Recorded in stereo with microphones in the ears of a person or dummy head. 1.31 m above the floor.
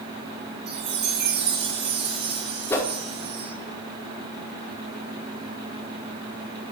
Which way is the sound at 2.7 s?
20° left (ahead or behind).